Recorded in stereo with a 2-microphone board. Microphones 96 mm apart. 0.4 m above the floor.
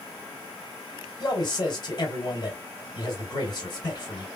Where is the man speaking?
45° left (ahead or behind), 1.6 m.